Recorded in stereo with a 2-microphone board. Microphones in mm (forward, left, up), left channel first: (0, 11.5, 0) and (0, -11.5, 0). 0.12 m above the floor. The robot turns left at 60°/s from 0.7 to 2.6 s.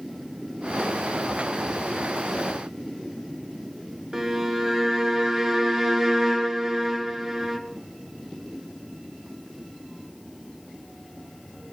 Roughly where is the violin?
Right.